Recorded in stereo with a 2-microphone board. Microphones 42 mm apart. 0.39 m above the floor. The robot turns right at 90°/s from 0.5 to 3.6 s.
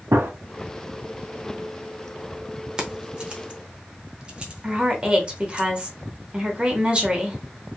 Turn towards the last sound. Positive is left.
turn(degrees=-25)  # may be behind; listen again after turning